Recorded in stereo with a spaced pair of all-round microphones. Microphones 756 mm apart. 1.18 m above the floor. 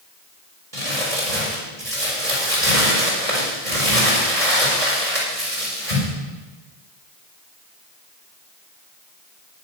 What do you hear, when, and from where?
0.7 s crumpling: 60° right (ahead or behind), 5 m